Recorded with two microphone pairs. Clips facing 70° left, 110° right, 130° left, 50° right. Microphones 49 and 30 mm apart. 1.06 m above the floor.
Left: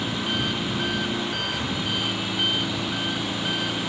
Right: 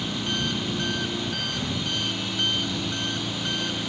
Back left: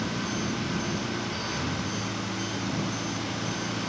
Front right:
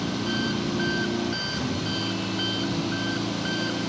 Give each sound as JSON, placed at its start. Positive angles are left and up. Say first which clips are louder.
{"t": 0.0, "sound": "an engine running", "louder": "left 2 dB, front right 3 dB", "azimuth_deg": -10}